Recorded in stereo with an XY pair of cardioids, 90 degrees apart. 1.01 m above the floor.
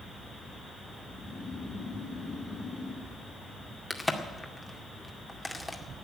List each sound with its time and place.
1.0 s snoring: 50° left, 4.5 m
3.9 s a crack: 10° left, 2 m